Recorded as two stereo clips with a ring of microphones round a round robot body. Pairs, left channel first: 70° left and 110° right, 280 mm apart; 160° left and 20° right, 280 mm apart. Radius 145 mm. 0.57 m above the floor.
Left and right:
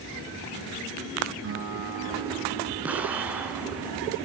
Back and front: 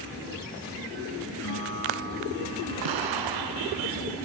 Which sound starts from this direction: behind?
A guitar, at 1.4 s.